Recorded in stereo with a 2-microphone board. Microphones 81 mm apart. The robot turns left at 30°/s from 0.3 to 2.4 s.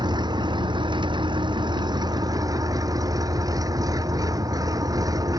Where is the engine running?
65° right; by 5.4 s 130° right.